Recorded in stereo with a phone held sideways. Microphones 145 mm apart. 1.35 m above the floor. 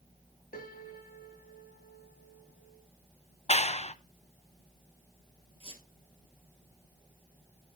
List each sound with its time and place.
0.5 s a piano: 75° left (ahead or behind), 1.5 m
3.5 s a clap: 45° left (ahead or behind), 0.6 m
5.6 s a squeak: 35° right (ahead or behind), 1.6 m